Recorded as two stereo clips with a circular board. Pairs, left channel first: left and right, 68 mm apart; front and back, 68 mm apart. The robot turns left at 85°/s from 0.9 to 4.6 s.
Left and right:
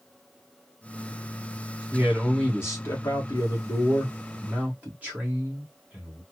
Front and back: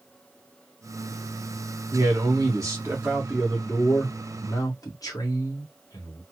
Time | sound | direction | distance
1.9 | a man speaking | 155° right | 1.5 m